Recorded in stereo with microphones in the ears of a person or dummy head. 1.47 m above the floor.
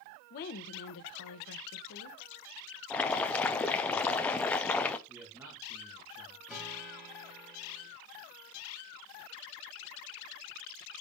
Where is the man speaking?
20° right (ahead or behind), 1.9 m.